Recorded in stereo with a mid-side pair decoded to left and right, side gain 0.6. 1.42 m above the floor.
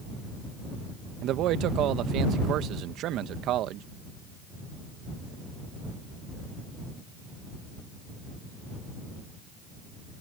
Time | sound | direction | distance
1.2 | a man speaking | 60° right | ?